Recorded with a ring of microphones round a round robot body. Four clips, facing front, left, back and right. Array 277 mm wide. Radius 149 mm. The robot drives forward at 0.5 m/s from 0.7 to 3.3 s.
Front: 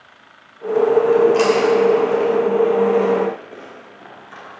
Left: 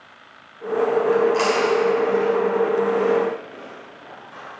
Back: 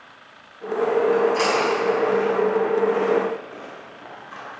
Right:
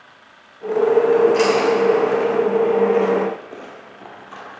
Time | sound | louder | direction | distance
1.1 | chewing | right 4 dB, front 6 dB | 30° right | 1.9 m